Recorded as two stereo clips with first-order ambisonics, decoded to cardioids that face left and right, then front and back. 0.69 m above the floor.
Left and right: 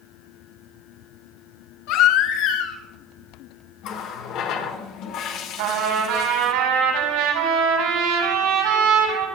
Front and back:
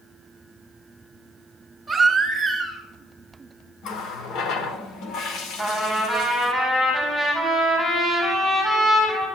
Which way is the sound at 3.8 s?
50° left.